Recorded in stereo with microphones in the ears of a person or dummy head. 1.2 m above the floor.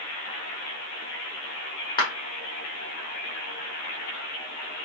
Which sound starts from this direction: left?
A clap, at 2.0 s.